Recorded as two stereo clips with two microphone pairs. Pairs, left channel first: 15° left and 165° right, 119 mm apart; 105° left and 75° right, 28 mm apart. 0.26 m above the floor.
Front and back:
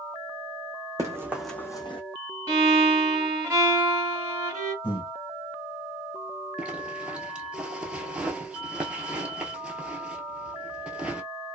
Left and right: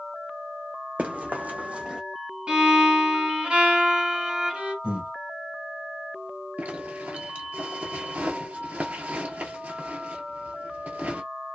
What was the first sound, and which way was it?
Running footsteps, 105° right.